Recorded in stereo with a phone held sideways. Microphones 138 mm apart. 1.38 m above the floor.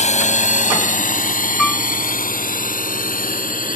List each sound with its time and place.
0.0 s a drone: 60° left (ahead or behind); by 3.8 s 80° left
1.6 s a piano: 5° left (ahead or behind)